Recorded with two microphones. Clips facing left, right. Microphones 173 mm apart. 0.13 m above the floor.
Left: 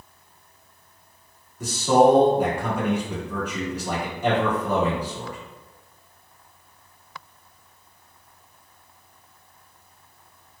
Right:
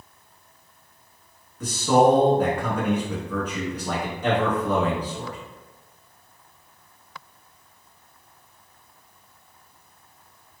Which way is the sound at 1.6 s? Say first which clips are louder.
Left 1 dB; 10° left (ahead or behind).